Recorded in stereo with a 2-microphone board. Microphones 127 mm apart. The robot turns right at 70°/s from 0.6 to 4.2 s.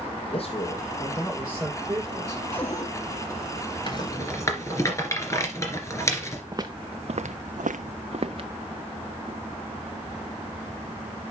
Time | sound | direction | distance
0.2 | a man speaking | 130° left | 6 m
2.5 | a cupboard door | 10° left (ahead or behind) | 3 m
3.9 | a rattle | 40° left (ahead or behind) | 2.5 m
6.5 | footsteps | 30° right (ahead or behind) | 0.8 m